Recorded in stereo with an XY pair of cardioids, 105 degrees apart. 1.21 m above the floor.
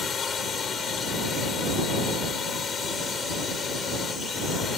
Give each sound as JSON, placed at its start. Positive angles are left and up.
{"t": 0.0, "sound": "a drone", "azimuth_deg": 50}